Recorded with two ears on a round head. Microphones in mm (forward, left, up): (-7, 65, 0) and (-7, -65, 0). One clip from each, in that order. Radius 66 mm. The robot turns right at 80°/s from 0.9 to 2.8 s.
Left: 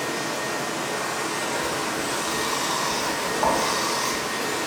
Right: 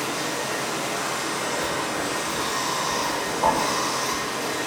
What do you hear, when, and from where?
0.0 s running water: 25° right, 0.8 m; by 4.7 s 125° left, 0.8 m
1.6 s writing: 20° right (ahead or behind), 1.0 m; by 4.2 s 25° left (ahead or behind), 1.0 m